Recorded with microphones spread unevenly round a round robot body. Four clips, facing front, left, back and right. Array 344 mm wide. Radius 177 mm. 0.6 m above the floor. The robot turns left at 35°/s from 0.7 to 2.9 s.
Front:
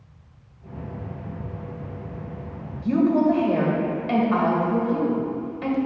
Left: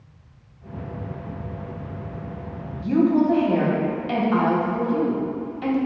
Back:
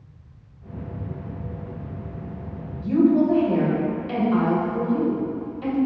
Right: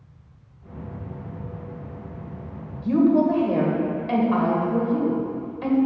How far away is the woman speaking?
About 2.5 m.